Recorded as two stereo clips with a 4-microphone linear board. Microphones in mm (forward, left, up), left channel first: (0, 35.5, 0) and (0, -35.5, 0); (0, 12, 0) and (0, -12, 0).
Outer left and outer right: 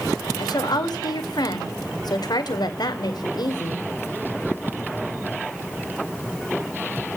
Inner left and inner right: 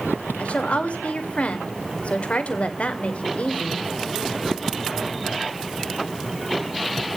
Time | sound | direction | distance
0.4 | a woman speaking | 70° left (ahead or behind) | 2.5 m